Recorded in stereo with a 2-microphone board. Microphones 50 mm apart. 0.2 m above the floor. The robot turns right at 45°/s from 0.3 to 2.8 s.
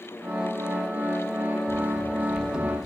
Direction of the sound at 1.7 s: 55° right (ahead or behind).